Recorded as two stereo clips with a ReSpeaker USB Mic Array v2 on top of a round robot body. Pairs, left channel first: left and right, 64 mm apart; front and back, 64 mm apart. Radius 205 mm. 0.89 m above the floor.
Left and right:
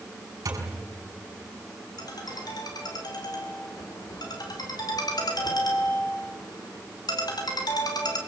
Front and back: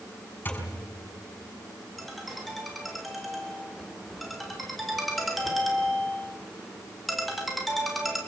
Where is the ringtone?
90° left, 3 m.